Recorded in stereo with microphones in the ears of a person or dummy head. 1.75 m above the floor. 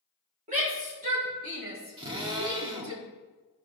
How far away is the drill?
About 1.4 m.